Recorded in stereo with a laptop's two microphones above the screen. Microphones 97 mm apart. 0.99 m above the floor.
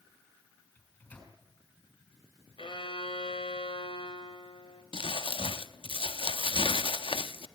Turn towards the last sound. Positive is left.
turn(degrees=65)  # may be behind; listen again after turning